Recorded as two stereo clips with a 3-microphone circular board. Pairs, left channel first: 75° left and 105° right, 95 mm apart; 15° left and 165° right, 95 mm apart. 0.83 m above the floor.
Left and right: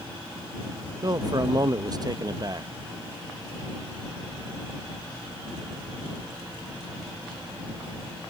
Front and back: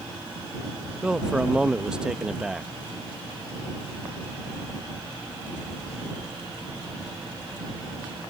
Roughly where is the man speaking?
Right.